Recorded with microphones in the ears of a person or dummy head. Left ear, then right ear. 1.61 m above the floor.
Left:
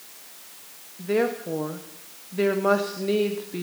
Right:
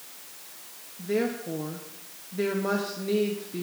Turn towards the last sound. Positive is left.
turn(degrees=30)  # may be behind; listen again after turning